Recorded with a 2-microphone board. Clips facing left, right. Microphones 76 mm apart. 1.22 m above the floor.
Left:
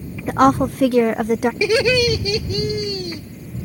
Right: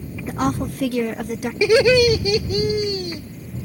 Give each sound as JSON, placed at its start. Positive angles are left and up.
{"t": 0.3, "sound": "a woman speaking", "side_deg": 60}
{"t": 1.6, "sound": "laughter", "side_deg": -15}